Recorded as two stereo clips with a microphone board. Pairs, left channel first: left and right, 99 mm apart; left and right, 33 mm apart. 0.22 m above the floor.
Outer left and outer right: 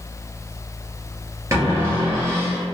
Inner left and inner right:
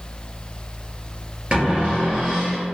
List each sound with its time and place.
1.5 s a cupboard door: 30° right (ahead or behind), 1.8 m